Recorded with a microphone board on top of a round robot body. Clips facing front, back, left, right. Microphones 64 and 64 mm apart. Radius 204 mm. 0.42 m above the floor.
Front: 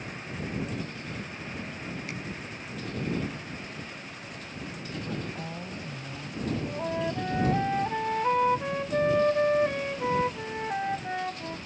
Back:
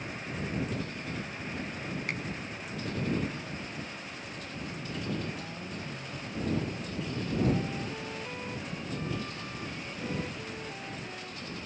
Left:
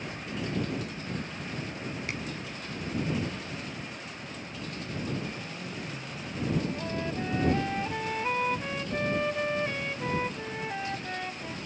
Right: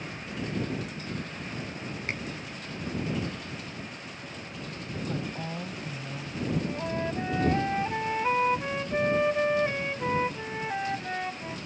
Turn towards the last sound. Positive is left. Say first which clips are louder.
# front 7 dB, right 2 dB
turn(degrees=-20)